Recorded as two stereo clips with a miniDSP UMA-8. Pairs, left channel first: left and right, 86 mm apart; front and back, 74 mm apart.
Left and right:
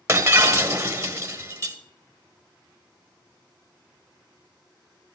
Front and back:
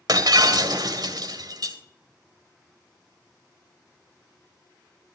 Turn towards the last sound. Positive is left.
turn(degrees=-145)